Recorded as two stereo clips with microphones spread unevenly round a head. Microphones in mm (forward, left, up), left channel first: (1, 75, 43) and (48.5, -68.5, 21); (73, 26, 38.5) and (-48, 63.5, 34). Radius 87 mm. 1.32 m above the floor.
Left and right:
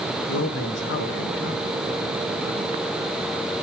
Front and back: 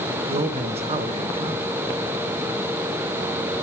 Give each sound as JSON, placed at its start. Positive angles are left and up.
{"t": 0.3, "sound": "a man speaking", "azimuth_deg": 125, "distance_m": 1.9}